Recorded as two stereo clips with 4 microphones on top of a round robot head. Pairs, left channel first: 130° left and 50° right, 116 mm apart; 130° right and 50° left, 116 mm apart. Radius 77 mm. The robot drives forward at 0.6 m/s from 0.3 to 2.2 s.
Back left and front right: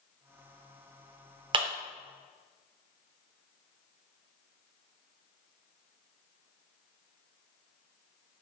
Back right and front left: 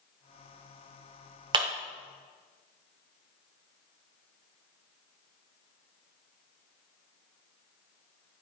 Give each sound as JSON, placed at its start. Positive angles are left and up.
{"t": 1.5, "sound": "a clap", "azimuth_deg": 0, "distance_m": 0.5}